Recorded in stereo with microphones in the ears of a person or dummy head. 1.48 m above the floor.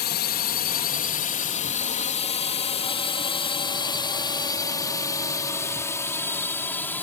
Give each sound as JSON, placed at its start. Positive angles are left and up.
{"t": 0.0, "sound": "a drone", "side_deg": 50}